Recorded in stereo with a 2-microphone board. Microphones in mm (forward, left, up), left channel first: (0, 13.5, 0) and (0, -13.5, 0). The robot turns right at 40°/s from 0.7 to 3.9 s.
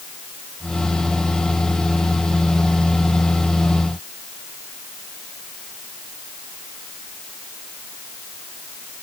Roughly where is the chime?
I don't hear a chime.